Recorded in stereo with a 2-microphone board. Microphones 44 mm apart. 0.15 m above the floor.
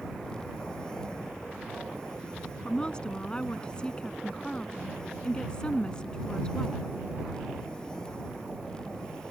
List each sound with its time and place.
2.6 s a woman speaking: 20° left (ahead or behind)